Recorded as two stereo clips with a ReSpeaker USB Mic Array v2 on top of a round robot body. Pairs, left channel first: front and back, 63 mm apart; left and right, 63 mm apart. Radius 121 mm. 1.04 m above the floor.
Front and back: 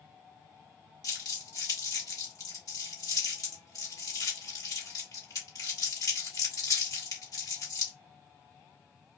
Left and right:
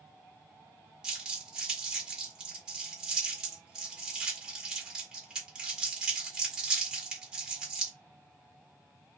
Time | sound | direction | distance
1.0 | crumpling | 10° right | 1.4 m